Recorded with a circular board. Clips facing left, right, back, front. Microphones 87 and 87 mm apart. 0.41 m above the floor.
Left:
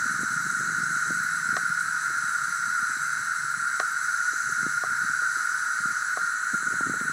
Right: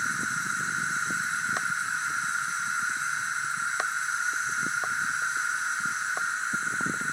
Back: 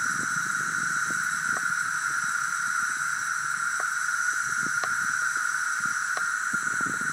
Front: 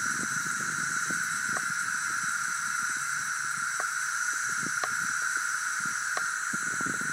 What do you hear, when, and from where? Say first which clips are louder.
0.0 s an insect: left 2 dB, back 4 dB; 150° left, 1.4 m